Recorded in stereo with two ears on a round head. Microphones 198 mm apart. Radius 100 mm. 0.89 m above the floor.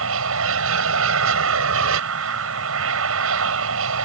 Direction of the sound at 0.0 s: 75° right (ahead or behind).